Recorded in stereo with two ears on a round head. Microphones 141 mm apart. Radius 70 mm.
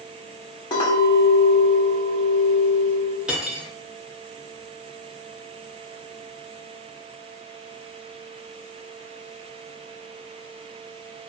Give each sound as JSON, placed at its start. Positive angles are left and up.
{"t": 0.7, "sound": "a clink", "side_deg": 30, "distance_m": 0.8}
{"t": 3.3, "sound": "cutlery clinking", "side_deg": -5, "distance_m": 0.5}